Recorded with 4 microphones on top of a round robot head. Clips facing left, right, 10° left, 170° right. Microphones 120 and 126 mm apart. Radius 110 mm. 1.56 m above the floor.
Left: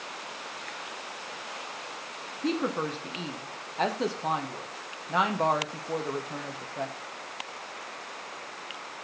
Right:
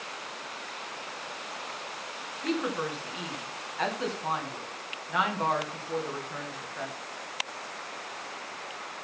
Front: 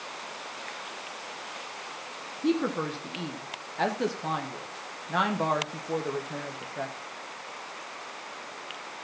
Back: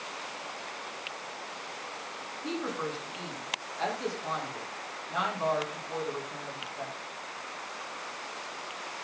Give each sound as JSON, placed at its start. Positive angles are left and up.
{"t": 2.4, "sound": "a woman speaking", "azimuth_deg": 35, "distance_m": 1.3}